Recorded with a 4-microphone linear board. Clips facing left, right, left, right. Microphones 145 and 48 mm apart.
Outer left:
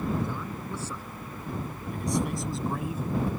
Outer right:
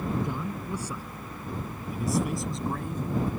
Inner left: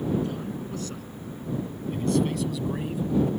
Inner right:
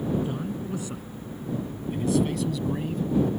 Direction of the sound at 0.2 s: 15° right (ahead or behind).